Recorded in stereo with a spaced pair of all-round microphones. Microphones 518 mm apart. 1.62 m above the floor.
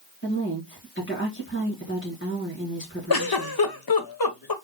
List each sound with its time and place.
0.2 s a woman speaking: 25° left (ahead or behind), 1.7 m
3.1 s a giggle: 45° left (ahead or behind), 0.8 m